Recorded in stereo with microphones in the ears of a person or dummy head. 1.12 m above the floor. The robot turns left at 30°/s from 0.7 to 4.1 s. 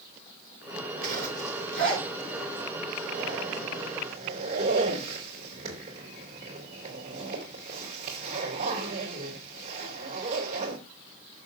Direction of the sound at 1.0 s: 50° right (ahead or behind).